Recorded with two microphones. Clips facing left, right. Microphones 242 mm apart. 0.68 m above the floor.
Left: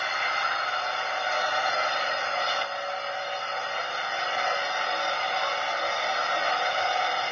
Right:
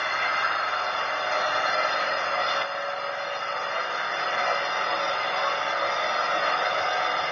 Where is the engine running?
60° right (ahead or behind), 0.8 m.